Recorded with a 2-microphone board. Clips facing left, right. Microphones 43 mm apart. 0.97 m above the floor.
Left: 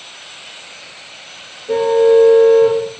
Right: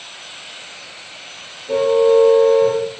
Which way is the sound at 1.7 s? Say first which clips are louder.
Left 2 dB; 55° left (ahead or behind).